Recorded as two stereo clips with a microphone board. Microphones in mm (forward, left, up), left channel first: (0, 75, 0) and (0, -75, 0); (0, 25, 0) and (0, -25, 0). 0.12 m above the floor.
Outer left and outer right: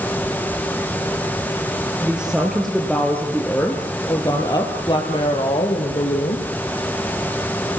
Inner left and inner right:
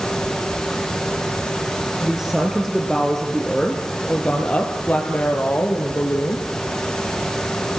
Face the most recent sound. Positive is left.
turn(degrees=50)  # may be behind; listen again after turning